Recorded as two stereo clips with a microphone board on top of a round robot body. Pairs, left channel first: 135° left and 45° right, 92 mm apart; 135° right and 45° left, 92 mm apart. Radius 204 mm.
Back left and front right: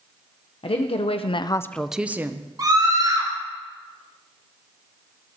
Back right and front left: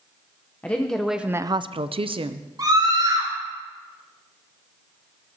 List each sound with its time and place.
0.6 s a woman speaking: 150° left, 0.9 m; by 2.5 s 15° left, 1.0 m
2.6 s a scream: straight ahead, 4 m